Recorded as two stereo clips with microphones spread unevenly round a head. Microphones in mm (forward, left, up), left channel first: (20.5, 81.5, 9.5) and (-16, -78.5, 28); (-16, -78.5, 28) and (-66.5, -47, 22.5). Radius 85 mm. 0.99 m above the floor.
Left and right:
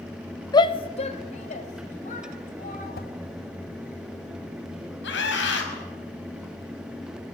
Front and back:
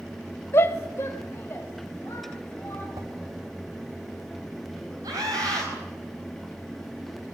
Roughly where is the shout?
Ahead.